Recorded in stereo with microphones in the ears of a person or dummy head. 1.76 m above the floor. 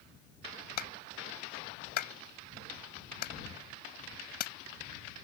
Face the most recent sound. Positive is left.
turn(degrees=65)  # may be behind; listen again after turning